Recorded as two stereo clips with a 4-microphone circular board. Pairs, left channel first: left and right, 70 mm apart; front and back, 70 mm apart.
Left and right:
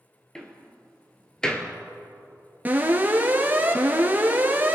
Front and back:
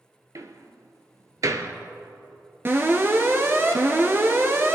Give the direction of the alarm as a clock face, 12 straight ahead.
5 o'clock.